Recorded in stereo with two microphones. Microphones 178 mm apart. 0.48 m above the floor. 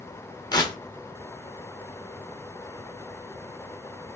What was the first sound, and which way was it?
Tearing paper, 25° left (ahead or behind).